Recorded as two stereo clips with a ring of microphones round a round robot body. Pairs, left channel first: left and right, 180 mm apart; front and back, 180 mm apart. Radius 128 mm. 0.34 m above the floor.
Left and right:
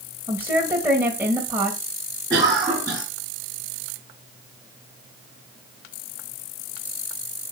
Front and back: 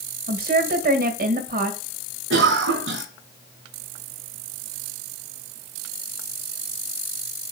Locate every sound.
0.3 s a woman speaking: 170° right, 1.7 m
2.3 s a cough: 165° right, 3.5 m